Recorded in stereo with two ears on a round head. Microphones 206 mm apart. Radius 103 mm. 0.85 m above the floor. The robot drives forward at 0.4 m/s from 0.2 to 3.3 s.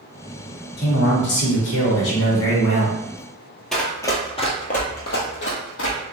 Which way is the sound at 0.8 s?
45° left (ahead or behind).